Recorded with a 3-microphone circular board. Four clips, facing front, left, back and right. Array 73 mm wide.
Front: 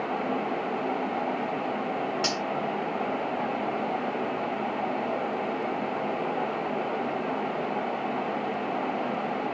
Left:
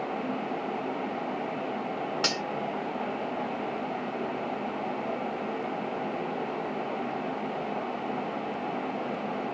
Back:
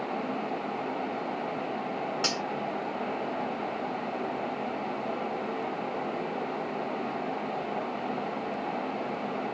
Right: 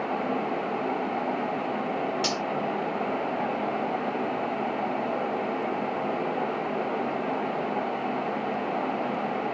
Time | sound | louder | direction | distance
2.2 | cutlery clinking | right 2 dB, front 2 dB | 95° left | 1.0 m